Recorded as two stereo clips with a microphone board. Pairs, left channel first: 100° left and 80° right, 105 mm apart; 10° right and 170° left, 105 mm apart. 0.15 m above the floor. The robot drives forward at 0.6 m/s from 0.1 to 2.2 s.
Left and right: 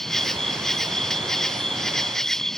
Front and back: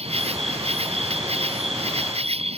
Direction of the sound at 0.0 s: 175° right.